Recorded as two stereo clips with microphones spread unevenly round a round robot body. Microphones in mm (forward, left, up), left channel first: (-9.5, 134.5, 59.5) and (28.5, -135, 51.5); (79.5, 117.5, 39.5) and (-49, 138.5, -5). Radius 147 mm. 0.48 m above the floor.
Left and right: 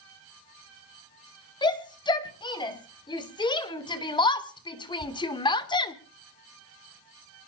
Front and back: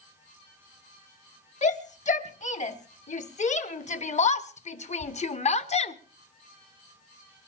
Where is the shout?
25° left, 4 m; by 6.0 s 30° left, 1.7 m.